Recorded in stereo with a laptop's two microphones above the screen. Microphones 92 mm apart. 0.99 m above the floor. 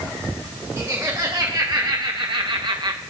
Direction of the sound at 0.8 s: 35° right (ahead or behind).